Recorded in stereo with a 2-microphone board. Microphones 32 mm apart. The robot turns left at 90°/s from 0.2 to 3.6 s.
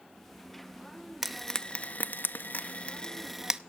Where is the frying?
15° right (ahead or behind), 0.5 m; by 3.6 s 20° right (ahead or behind), 0.5 m.